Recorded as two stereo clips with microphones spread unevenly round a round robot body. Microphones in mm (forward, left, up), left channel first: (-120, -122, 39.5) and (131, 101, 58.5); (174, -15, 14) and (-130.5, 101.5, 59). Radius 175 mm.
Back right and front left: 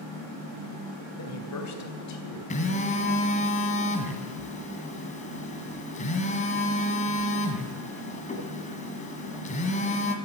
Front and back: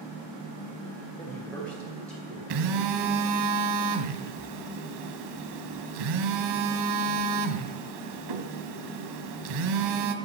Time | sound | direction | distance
1.2 | a man speaking | 100° right | 3 m
2.5 | a phone buzzing | 150° left | 1.6 m